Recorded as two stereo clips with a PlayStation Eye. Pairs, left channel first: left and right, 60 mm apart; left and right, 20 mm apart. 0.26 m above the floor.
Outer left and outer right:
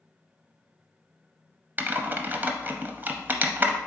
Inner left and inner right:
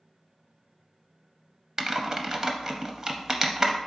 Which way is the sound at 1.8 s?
35° right (ahead or behind).